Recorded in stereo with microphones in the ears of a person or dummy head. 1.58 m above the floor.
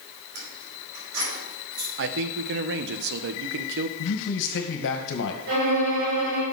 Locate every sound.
0.3 s keys jangling: 70° right (ahead or behind), 5 m; by 1.9 s 50° right (ahead or behind), 4.5 m
2.0 s a man speaking: 55° right (ahead or behind), 0.8 m
4.0 s a man speaking: 70° left (ahead or behind), 1.7 m
5.5 s a violin: 60° right (ahead or behind), 3 m